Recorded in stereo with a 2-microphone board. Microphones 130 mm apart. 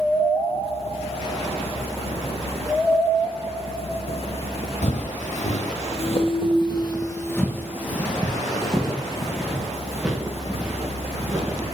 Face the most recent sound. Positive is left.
turn(degrees=-10)  # may be behind; listen again after turning